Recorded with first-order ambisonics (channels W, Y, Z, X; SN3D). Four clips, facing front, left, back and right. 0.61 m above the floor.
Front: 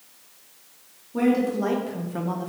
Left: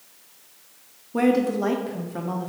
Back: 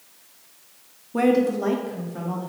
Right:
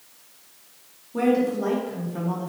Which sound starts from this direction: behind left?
A woman speaking, at 1.1 s.